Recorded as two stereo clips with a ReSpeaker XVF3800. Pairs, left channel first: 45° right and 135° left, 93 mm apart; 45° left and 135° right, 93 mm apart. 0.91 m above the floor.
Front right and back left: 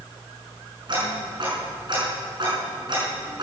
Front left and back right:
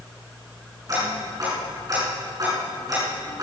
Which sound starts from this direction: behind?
Ticking, at 0.9 s.